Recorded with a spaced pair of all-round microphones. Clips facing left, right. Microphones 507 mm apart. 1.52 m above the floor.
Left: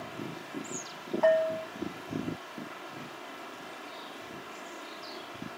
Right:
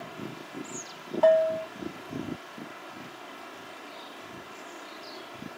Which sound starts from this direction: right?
A bell, at 1.2 s.